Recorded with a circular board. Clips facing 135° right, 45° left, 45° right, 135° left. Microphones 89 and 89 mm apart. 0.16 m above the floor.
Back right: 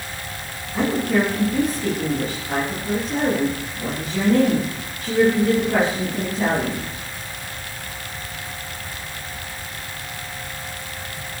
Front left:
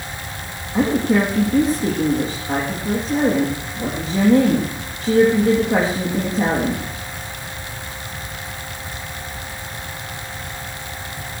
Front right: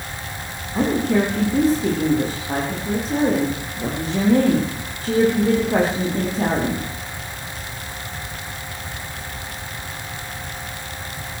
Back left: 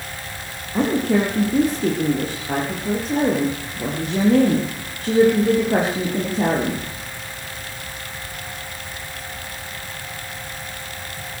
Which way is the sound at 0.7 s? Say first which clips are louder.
Front left 3 dB, even; 105° left.